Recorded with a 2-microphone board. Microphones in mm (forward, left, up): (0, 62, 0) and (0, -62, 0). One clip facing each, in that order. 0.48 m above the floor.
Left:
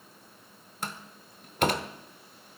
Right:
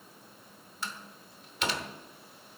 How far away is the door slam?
About 0.7 m.